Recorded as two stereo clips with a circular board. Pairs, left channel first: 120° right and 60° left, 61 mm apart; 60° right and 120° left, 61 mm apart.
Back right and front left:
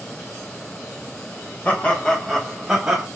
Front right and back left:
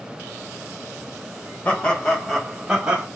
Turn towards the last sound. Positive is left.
turn(degrees=105)